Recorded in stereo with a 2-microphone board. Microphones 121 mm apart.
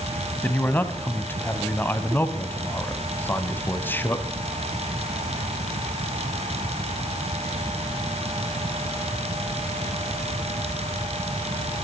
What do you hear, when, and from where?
0.4 s a man speaking: 15° left (ahead or behind), 1.4 m